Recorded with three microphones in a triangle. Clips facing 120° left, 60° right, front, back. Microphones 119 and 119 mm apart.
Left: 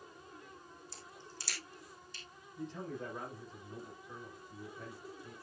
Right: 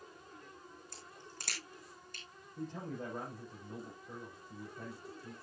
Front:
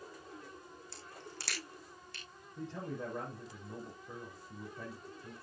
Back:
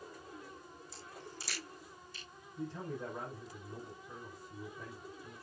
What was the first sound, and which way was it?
A crack, 25° right.